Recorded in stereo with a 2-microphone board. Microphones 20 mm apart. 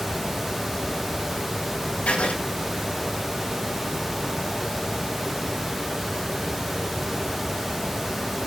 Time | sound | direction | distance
2.1 | writing | 80° left | 3.5 m